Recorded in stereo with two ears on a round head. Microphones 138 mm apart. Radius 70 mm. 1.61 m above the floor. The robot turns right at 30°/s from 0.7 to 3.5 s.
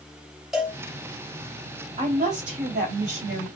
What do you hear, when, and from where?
0.5 s a cowbell: 5° right (ahead or behind), 2 m
2.0 s a woman speaking: 135° right, 3.5 m; by 3.5 s 90° right, 3.5 m